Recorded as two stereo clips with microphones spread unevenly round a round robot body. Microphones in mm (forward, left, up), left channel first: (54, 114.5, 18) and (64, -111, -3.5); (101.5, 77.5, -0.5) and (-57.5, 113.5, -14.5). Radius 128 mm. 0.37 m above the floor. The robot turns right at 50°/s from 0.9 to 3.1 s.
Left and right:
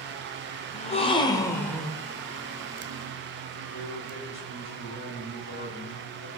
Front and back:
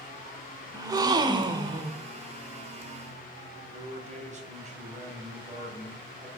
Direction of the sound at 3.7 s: 140° left.